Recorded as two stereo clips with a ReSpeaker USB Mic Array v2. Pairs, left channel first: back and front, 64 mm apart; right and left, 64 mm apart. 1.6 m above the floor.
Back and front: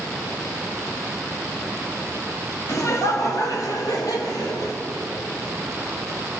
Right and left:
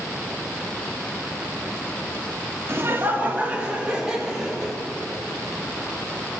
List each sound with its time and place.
2.7 s laughter: 140° left, 2.5 m; by 4.8 s straight behind, 5 m